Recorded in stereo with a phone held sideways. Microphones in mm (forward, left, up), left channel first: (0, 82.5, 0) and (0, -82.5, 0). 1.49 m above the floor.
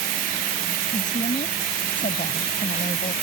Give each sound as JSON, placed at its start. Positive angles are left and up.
{"t": 0.9, "sound": "a woman speaking", "side_deg": 50}